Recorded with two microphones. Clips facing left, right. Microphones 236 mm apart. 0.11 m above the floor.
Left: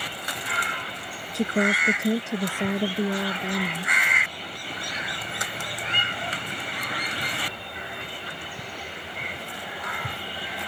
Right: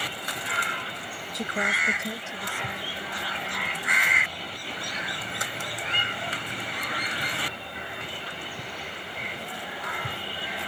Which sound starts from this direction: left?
A woman speaking, at 1.3 s.